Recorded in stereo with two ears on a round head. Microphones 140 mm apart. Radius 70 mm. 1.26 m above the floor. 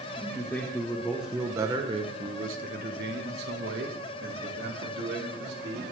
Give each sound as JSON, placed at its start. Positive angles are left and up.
{"t": 0.2, "sound": "a man speaking", "side_deg": 20, "distance_m": 1.8}